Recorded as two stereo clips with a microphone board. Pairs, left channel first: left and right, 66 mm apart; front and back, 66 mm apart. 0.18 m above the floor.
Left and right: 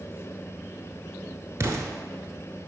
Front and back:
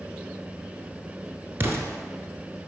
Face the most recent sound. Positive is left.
turn(degrees=-130)